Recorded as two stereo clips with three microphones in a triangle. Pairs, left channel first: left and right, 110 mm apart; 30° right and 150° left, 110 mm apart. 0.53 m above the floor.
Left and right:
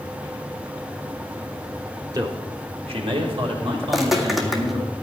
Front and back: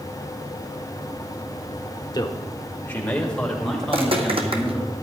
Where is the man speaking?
55° right, 1.1 m; by 4.8 s 120° right, 4 m.